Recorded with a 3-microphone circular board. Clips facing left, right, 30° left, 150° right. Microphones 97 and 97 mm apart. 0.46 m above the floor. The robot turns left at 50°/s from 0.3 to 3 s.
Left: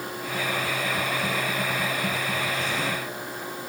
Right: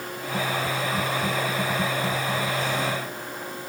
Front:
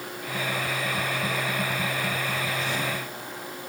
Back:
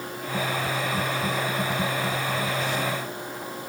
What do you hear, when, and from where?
Only background noise.